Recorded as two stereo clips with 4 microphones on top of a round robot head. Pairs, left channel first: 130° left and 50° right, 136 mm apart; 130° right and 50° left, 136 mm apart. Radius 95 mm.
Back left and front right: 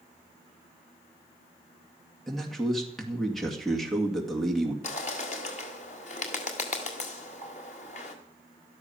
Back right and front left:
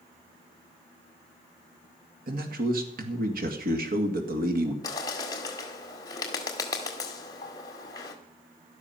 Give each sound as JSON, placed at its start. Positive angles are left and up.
{"t": 2.3, "sound": "a man speaking", "azimuth_deg": 45, "distance_m": 2.0}
{"t": 4.8, "sound": "a bird", "azimuth_deg": 165, "distance_m": 1.7}